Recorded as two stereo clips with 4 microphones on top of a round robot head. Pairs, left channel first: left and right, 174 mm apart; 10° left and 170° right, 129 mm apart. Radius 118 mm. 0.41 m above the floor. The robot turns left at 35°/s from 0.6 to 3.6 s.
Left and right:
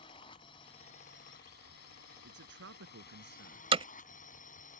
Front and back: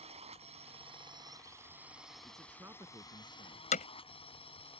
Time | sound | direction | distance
0.0 | a drone | 155° left | ?
2.2 | a man speaking | 75° right | ?
3.7 | hammering | 30° right | ?